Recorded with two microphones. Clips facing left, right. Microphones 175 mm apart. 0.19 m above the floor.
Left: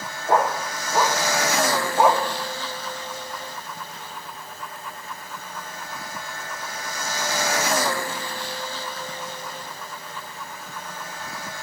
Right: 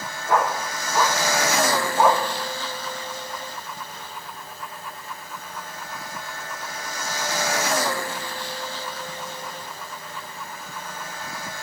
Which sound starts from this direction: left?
A dog barking, at 0.3 s.